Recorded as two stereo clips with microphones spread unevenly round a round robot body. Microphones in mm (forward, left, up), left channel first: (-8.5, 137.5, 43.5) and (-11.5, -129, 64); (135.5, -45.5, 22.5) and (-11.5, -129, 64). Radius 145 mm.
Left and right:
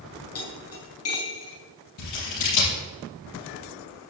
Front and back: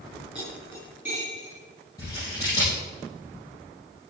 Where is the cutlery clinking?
125° left, 4 m.